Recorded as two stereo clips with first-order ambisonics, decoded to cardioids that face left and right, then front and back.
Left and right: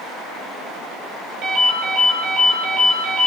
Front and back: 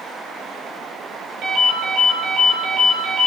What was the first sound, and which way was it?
A ringtone, 135° right.